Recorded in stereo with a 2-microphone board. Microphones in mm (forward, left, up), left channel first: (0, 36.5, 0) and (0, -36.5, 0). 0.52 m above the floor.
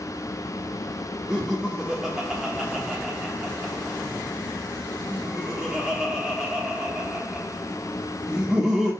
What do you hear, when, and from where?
1.3 s laughter: 5° right (ahead or behind), 0.9 m